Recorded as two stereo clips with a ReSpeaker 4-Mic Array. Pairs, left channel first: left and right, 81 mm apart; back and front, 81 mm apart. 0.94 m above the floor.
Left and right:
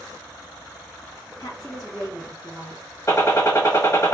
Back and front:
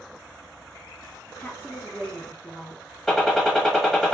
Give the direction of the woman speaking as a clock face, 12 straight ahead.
8 o'clock.